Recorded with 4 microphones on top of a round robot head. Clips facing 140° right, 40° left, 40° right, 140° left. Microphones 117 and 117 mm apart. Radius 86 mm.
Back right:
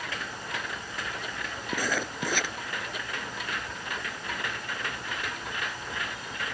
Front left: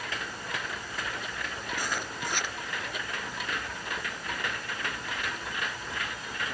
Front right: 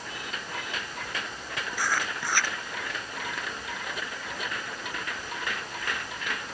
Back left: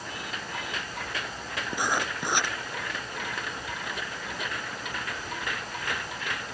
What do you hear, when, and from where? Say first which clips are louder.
1.7 s writing: back right 5 dB, back left 2 dB; 150° right